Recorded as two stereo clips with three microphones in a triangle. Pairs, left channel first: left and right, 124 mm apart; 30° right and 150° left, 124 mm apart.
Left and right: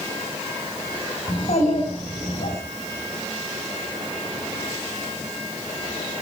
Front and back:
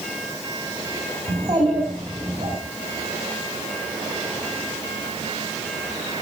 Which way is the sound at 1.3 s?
100° left.